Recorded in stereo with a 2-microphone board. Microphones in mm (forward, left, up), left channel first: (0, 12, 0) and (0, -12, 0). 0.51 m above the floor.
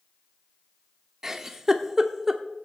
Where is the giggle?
20° right (ahead or behind), 1.2 m.